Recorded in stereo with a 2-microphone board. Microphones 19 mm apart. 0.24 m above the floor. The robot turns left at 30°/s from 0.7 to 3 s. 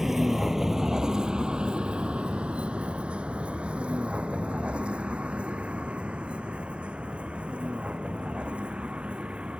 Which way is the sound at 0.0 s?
20° right (ahead or behind).